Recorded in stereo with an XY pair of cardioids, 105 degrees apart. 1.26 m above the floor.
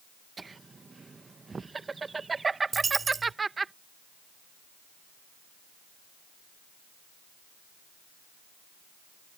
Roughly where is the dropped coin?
Ahead right.